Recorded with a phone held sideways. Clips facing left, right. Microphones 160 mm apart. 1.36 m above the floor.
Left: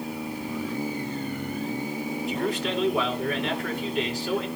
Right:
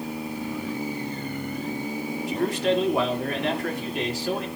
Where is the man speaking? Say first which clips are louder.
Right 6 dB; 75° right (ahead or behind), 3 m.